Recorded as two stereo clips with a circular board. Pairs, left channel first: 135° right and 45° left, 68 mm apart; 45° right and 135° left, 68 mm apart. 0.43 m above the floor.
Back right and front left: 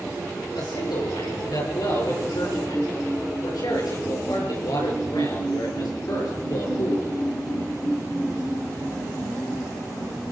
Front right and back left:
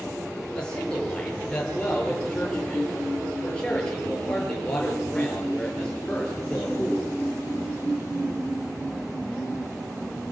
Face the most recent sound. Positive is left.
turn(degrees=-120)